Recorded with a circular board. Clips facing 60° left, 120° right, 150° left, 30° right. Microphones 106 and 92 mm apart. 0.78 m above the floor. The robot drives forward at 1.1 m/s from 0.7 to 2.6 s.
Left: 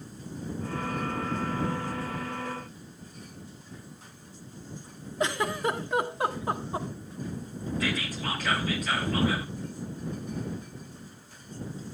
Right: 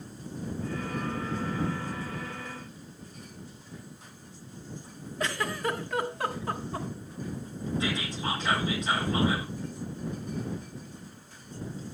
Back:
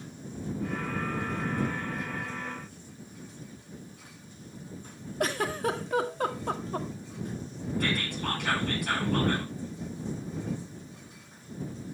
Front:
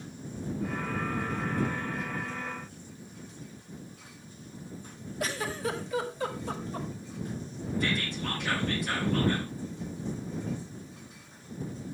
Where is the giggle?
125° left, 1.5 m.